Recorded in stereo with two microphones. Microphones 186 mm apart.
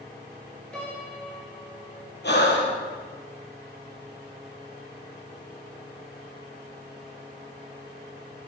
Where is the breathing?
70° left (ahead or behind), 4.5 m.